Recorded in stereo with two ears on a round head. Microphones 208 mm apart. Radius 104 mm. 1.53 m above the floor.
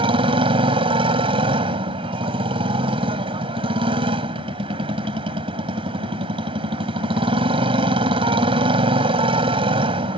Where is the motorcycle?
25° right (ahead or behind).